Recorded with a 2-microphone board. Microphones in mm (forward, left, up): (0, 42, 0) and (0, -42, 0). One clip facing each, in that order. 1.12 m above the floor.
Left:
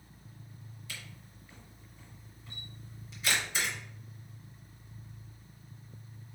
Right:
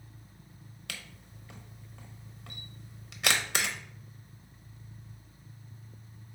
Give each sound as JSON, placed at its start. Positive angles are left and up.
{"t": 0.9, "sound": "a camera shutter", "side_deg": -70, "distance_m": 0.6}